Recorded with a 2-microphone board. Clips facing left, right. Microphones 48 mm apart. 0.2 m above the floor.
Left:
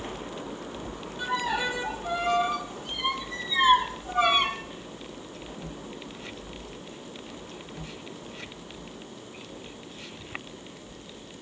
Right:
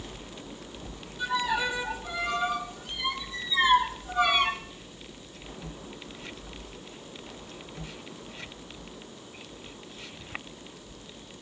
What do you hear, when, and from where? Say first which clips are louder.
1.2 s a violin: even; 40° left (ahead or behind), 3.5 m